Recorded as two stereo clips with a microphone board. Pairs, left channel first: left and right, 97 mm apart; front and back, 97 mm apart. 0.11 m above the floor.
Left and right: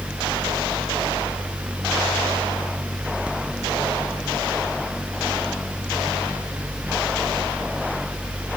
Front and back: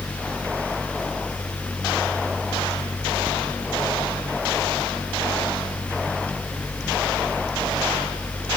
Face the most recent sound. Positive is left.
No sound to turn to.